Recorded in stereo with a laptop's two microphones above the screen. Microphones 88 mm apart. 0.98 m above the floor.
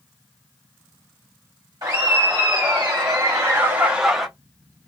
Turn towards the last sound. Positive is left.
turn(degrees=-5)  # may be behind; listen again after turning